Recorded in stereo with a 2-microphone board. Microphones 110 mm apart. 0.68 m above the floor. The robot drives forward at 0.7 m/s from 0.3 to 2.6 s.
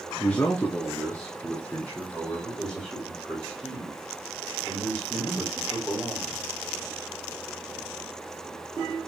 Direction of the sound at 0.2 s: 10° left (ahead or behind).